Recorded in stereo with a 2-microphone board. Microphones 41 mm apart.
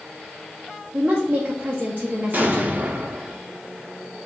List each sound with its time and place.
0.9 s a woman speaking: 30° right (ahead or behind), 0.7 m
2.3 s an explosion: 45° right (ahead or behind), 0.5 m